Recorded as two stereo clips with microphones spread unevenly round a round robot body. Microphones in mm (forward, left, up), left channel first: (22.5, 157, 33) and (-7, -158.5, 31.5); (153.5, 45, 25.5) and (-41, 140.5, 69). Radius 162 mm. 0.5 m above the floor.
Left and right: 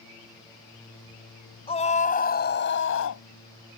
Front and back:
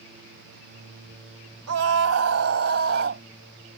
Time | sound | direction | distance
1.7 | a scream | 160° left | ?